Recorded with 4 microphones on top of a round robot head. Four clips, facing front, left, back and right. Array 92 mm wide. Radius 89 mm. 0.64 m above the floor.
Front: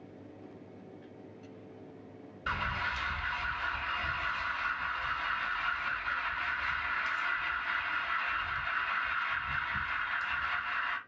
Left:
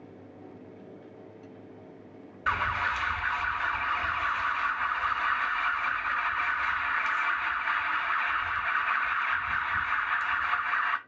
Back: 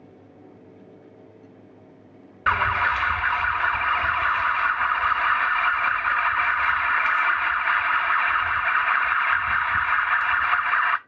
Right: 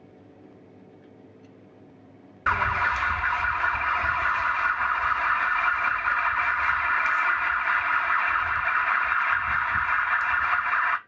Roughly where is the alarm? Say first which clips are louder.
Right 5 dB, back 13 dB; behind right.